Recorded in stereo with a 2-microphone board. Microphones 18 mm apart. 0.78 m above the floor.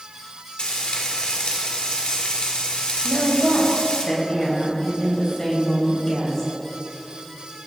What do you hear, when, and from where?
0.6 s frying: 55° left (ahead or behind), 2.5 m
3.0 s a woman speaking: 20° left (ahead or behind), 3.5 m